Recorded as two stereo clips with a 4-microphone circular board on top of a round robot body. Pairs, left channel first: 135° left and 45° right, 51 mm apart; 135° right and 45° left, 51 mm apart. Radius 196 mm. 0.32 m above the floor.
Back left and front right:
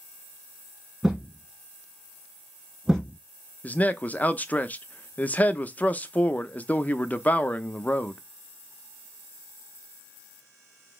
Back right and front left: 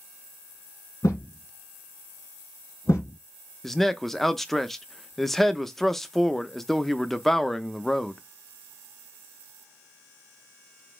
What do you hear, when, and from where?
1.0 s a thud: 130° right, 3 m
3.6 s a man speaking: 145° left, 0.9 m